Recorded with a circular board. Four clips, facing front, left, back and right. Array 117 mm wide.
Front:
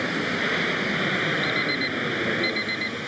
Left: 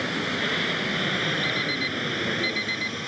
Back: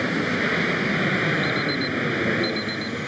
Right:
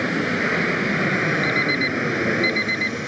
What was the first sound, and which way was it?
An aircraft, 105° right.